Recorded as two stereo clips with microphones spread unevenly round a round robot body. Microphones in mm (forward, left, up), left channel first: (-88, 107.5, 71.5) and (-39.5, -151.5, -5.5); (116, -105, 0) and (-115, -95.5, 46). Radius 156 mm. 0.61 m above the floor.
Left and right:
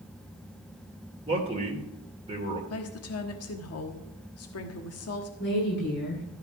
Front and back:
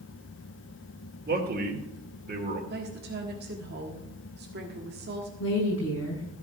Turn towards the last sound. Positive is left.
turn(degrees=45)